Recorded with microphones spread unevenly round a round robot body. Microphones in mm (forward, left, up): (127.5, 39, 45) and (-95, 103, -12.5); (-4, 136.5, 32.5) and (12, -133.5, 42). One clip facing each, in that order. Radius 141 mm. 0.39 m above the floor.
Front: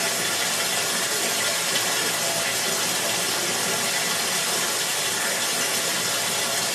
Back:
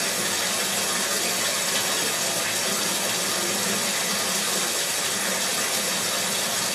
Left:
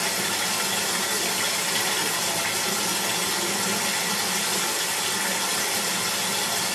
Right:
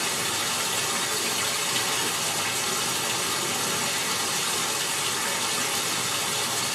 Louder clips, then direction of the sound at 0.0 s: Even, left 2 dB; 95° left.